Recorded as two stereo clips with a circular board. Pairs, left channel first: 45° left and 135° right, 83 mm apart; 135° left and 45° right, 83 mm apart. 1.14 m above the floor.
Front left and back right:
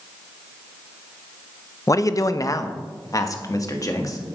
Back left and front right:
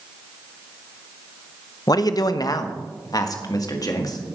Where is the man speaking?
95° left, 0.5 m.